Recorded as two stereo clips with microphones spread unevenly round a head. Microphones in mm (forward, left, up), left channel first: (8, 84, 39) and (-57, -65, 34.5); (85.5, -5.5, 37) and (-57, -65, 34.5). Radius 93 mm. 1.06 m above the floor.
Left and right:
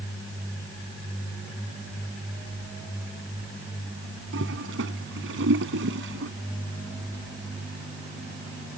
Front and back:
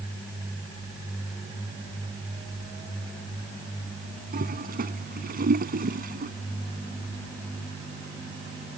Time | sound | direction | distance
4.3 | a toilet flushing | 125° right | ?